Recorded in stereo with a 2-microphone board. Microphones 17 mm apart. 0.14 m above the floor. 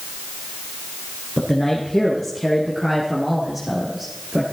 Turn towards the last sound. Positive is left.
turn(degrees=-20)  # may be behind; listen again after turning